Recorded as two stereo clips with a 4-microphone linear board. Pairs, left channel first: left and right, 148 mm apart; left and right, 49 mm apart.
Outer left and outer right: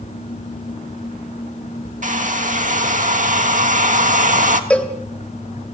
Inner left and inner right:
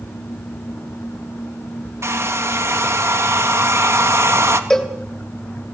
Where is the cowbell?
10° left (ahead or behind), 3 m.